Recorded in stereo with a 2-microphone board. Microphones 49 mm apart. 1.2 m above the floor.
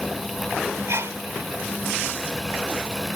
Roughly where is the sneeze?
Right.